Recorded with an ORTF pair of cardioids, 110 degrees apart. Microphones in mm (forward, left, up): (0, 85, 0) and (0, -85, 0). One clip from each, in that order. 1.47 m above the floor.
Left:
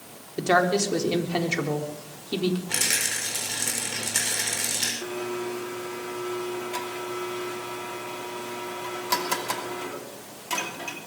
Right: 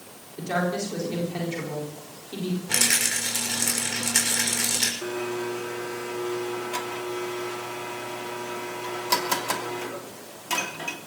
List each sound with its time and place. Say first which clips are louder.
0.4 s a woman speaking: left 6 dB; 55° left, 4 m
2.7 s a rattle: right 6 dB; 20° right, 6.5 m
5.0 s a blender: right 1 dB; 15° right, 2.5 m